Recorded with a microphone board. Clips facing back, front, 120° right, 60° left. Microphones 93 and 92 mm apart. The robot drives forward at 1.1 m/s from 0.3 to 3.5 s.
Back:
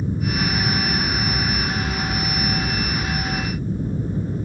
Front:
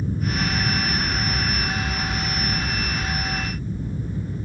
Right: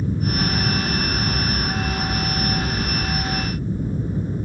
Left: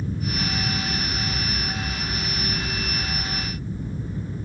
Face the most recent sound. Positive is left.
turn(degrees=-150)